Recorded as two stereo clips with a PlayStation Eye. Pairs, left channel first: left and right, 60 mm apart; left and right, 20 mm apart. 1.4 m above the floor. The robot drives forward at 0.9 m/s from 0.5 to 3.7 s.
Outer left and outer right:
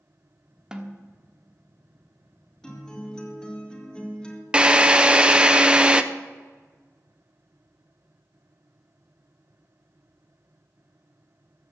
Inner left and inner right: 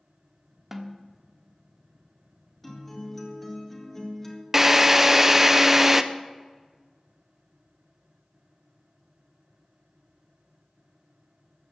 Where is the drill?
20° right (ahead or behind), 0.7 m.